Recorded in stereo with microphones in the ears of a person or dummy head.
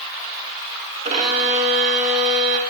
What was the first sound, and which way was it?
A violin, 50° right (ahead or behind).